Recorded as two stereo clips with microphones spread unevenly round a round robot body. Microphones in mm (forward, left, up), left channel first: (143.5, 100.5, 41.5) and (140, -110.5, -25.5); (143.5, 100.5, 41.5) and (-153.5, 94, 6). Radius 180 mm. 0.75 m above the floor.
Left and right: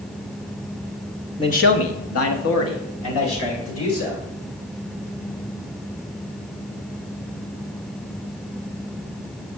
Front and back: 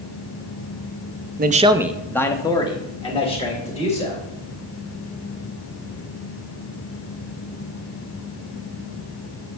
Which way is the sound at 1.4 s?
175° left.